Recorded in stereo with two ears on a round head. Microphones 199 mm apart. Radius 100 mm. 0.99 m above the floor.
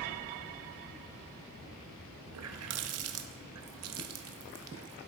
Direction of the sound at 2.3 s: 70° right (ahead or behind).